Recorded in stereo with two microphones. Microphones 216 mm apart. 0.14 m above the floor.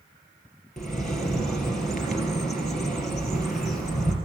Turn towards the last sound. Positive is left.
turn(degrees=35)  # may be behind; listen again after turning